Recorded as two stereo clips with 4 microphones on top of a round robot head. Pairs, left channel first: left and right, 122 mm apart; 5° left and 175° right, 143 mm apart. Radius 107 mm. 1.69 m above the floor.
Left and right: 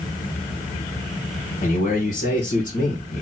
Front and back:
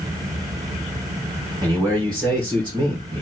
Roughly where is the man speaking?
Behind left.